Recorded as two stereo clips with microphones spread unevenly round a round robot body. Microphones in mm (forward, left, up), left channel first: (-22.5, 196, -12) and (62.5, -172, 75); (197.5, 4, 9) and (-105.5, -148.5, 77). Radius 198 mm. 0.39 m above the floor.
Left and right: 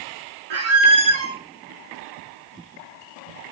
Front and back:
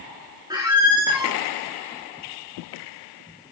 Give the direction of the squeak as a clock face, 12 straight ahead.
3 o'clock.